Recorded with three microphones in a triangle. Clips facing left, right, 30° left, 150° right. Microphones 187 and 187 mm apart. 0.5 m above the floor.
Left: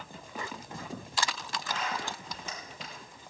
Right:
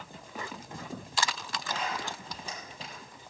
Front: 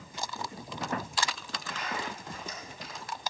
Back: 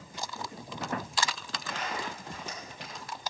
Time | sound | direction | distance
1.7 | a zipper | 145° right | 6.5 m